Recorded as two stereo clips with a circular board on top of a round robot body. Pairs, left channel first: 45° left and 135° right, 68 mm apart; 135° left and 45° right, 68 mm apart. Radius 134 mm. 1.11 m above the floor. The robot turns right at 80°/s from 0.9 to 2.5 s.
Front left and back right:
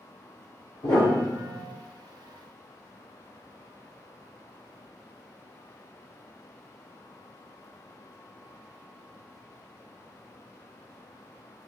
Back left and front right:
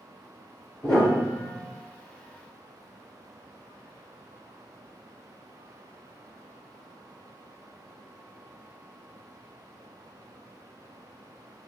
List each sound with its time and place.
0.8 s a piano: 85° left, 1.4 m; by 1.7 s 150° left, 1.4 m